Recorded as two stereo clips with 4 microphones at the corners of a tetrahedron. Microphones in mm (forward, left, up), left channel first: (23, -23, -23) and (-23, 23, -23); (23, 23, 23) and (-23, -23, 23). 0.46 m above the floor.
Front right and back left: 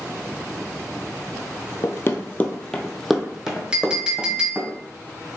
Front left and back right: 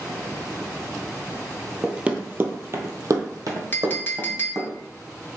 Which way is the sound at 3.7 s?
70° left.